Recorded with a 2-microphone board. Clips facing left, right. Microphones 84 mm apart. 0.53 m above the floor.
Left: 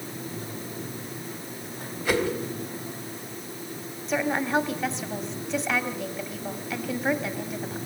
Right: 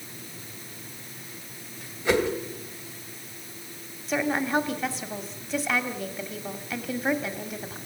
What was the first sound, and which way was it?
A whoosh, 20° right (ahead or behind).